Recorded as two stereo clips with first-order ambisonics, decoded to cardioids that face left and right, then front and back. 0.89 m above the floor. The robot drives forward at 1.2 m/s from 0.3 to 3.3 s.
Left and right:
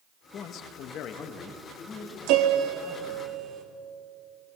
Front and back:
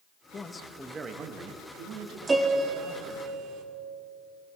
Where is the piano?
100° right, 1.1 m; by 3.6 s 145° right, 1.8 m.